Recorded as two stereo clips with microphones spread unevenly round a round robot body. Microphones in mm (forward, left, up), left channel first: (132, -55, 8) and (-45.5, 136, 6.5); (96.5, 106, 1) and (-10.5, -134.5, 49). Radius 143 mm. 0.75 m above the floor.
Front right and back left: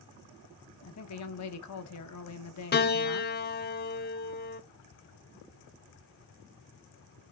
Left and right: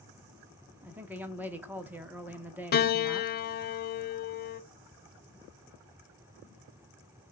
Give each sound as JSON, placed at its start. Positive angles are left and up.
{"t": 0.8, "sound": "a woman speaking", "azimuth_deg": -25, "distance_m": 1.2}
{"t": 2.7, "sound": "a piano", "azimuth_deg": 5, "distance_m": 0.6}